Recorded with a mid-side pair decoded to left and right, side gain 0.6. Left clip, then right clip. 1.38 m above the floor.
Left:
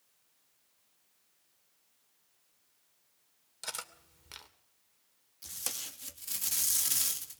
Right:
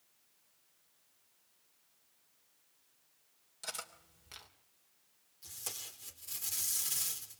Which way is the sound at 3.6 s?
30° left.